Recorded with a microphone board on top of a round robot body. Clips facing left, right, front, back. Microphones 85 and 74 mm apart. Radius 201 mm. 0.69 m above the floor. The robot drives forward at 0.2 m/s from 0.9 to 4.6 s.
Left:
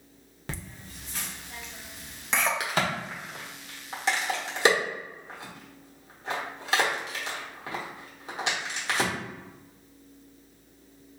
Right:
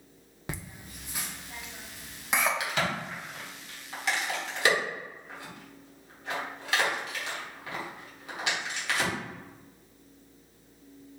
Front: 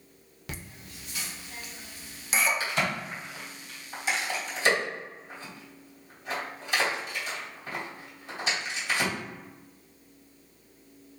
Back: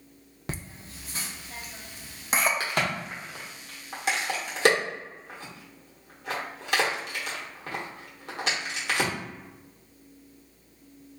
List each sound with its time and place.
0.5 s laughter: 155° right, 0.8 m; by 2.5 s 165° right, 1.0 m
2.6 s a crack: 140° left, 0.9 m; by 9.1 s 150° left, 1.2 m